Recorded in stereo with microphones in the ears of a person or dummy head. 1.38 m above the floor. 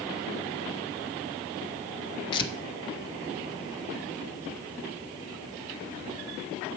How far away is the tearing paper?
About 1.0 m.